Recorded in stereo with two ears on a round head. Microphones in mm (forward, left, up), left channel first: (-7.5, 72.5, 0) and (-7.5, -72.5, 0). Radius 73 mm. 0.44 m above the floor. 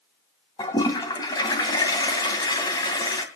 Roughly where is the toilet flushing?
Left.